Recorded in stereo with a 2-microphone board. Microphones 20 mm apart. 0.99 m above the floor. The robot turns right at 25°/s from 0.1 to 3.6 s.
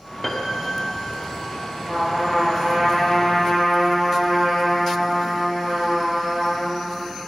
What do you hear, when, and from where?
0.2 s a piano: 10° left (ahead or behind), 1.0 m; by 1.1 s 10° right (ahead or behind), 1.0 m
1.9 s a trumpet: 155° right, 4 m; by 6.8 s 110° right, 4 m